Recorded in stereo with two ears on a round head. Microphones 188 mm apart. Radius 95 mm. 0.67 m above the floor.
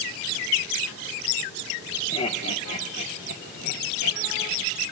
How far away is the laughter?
About 1.4 m.